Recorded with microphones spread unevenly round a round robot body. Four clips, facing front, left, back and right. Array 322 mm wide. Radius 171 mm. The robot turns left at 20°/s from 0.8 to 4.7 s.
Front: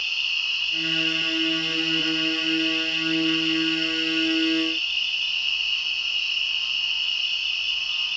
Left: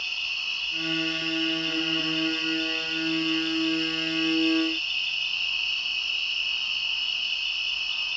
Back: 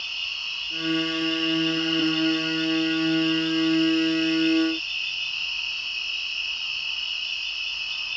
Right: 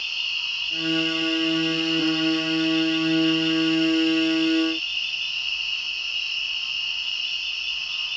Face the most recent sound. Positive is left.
turn(degrees=125)